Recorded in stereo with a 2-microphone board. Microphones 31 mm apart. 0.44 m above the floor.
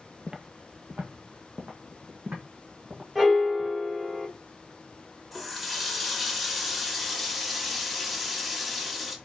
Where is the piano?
15° right (ahead or behind), 1.8 m.